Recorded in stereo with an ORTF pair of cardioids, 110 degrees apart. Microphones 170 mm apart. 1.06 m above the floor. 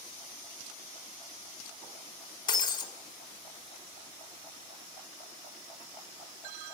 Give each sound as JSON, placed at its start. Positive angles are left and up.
{"t": 2.5, "sound": "breaking glass", "azimuth_deg": 25, "distance_m": 5.0}